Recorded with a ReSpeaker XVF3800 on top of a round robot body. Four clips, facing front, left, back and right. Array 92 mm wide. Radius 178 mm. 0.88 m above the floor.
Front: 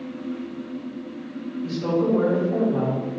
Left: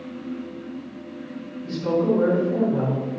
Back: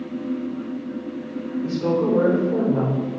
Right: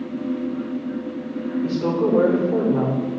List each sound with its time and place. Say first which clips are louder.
1.6 s a woman speaking: even, back 1 dB; 110° right, 4 m; by 3.0 s 115° right, 3.5 m